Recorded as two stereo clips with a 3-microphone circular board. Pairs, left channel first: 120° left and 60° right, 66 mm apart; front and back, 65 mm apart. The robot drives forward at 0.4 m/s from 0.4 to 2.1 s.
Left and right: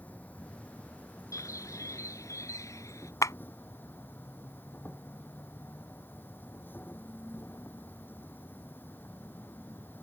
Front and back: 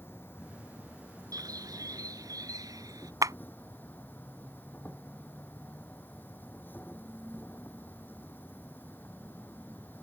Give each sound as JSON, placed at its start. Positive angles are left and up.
{"t": 0.0, "sound": "an insect", "azimuth_deg": 55}
{"t": 1.3, "sound": "a bird", "azimuth_deg": 160}
{"t": 3.2, "sound": "a clap", "azimuth_deg": 155}